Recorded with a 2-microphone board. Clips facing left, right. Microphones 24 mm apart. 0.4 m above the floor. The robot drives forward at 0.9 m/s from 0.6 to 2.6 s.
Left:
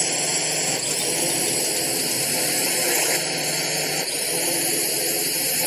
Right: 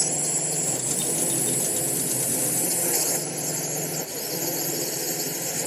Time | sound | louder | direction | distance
0.0 | a drone | left 4 dB | 65° left (ahead or behind) | ?